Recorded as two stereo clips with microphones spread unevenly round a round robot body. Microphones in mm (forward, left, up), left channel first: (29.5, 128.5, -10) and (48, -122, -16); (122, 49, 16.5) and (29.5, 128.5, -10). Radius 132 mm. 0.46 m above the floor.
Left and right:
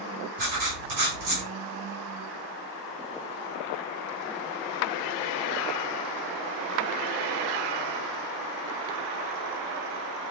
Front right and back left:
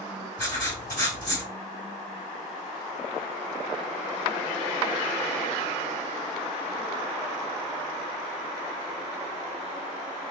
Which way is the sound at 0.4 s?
85° right.